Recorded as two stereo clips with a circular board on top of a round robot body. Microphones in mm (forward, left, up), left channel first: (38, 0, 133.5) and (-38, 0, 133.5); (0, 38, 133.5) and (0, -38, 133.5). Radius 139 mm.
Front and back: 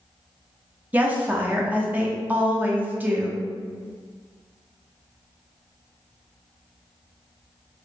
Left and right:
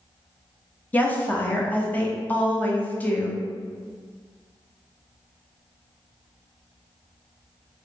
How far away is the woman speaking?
About 0.9 m.